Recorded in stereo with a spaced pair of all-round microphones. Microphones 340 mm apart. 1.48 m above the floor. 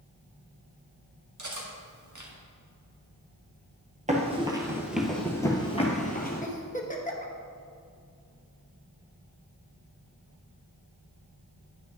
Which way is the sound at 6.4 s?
20° left (ahead or behind).